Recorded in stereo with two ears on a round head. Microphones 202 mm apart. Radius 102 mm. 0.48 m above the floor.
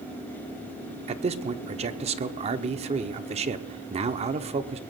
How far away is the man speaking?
About 0.8 m.